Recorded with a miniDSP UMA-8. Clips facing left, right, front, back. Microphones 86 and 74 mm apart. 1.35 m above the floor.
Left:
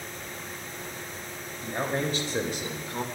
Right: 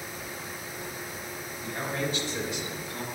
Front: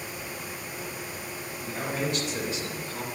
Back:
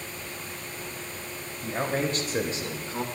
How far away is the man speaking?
About 2.5 m.